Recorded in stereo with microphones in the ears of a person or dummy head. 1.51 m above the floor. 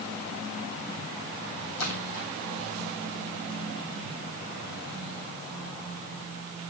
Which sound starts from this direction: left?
A splash, at 1.8 s.